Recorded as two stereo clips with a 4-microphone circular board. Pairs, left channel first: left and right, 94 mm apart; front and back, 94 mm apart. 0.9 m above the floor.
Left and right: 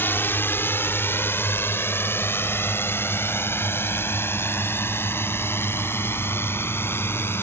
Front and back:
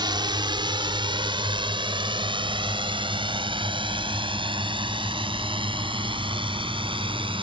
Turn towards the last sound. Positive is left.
turn(degrees=155)